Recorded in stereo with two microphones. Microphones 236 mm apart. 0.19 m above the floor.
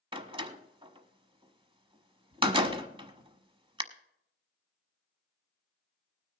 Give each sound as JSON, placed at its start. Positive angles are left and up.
{"t": 0.1, "sound": "a door slam", "side_deg": -20, "distance_m": 0.9}